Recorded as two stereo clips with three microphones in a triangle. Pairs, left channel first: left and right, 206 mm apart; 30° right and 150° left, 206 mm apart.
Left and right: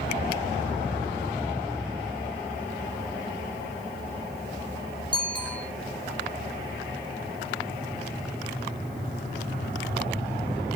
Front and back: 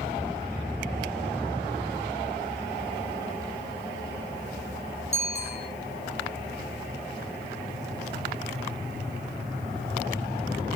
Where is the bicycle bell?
25° left, 7 m.